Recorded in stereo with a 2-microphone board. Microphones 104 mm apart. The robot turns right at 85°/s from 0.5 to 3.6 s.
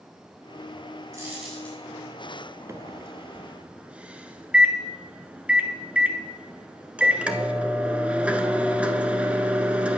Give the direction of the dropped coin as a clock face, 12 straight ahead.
1 o'clock.